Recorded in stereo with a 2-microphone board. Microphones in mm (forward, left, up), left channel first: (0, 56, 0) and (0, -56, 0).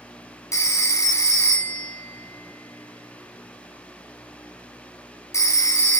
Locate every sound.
0.5 s a phone ringing: 30° left (ahead or behind), 1.0 m